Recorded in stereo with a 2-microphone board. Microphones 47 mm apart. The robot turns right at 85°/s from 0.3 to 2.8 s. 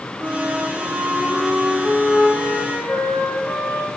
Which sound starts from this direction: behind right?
A flute, at 0.2 s.